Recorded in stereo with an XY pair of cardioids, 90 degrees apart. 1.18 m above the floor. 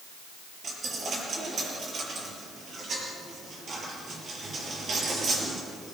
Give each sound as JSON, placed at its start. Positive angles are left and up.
{"t": 0.6, "sound": "a dropped coin", "azimuth_deg": -55, "distance_m": 6.5}